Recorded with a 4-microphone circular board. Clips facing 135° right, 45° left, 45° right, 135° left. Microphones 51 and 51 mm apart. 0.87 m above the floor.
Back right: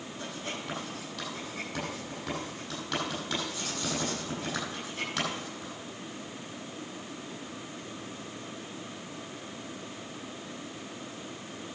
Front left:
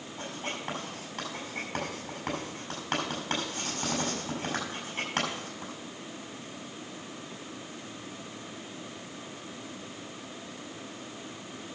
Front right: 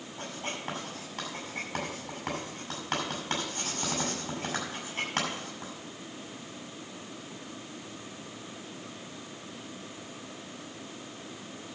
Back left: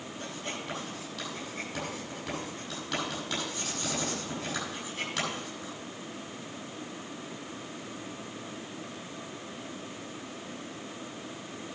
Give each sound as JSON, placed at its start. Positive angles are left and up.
{"t": 0.2, "sound": "writing", "azimuth_deg": 5, "distance_m": 6.5}